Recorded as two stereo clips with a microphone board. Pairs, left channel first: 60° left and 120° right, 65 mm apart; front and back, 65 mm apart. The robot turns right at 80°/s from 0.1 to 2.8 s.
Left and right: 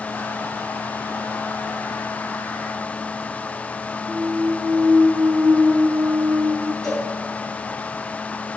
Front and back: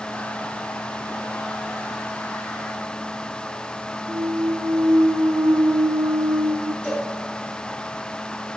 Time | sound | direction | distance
4.1 | a clunk | 170° left | 1.0 m
6.8 | a cowbell | 50° left | 4.5 m